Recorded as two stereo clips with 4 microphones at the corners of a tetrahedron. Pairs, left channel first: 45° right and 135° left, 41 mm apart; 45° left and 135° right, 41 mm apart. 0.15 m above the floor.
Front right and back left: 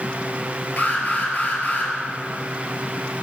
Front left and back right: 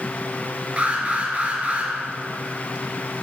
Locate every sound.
0.8 s an alarm: 85° right, 3.5 m